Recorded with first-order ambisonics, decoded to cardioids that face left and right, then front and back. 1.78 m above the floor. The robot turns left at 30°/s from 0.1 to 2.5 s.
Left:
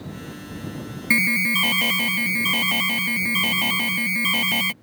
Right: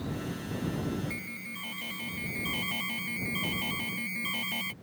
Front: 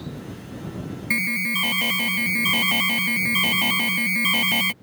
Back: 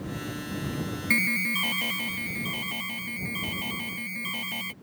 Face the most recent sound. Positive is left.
turn(degrees=45)